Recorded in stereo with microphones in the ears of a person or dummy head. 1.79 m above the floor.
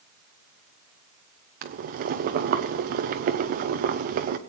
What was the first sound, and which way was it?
Boiling, 40° right (ahead or behind).